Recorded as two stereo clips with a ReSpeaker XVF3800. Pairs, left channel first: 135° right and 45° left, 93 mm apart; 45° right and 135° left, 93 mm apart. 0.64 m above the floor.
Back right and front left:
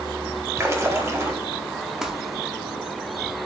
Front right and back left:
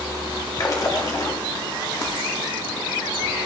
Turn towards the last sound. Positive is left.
turn(degrees=-35)